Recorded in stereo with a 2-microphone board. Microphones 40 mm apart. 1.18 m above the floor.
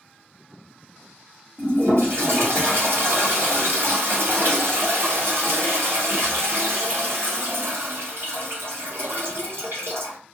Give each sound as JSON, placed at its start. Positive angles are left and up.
{"t": 1.6, "sound": "a toilet flushing", "side_deg": -70, "distance_m": 1.6}